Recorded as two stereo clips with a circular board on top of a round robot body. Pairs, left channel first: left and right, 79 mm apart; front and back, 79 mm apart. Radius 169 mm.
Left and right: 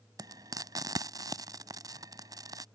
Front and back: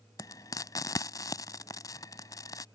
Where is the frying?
45° right.